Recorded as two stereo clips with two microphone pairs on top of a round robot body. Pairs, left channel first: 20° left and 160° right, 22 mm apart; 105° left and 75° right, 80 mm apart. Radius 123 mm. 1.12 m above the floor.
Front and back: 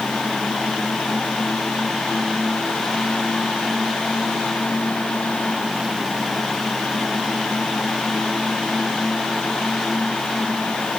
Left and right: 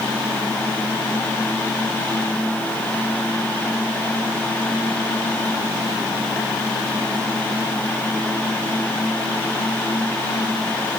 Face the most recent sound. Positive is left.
No sound to turn to.